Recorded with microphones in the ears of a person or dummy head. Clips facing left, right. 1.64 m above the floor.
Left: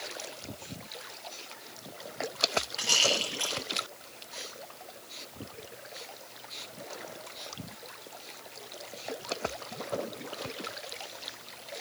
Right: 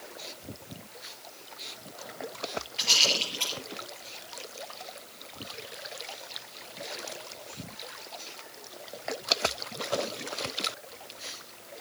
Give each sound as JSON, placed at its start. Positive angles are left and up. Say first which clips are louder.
{"t": 2.8, "sound": "a rattle", "louder": "left 1 dB", "side_deg": 10, "distance_m": 5.5}